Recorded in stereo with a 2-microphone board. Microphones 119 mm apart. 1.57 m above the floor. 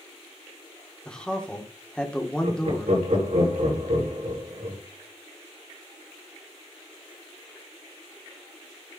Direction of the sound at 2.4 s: 75° right (ahead or behind).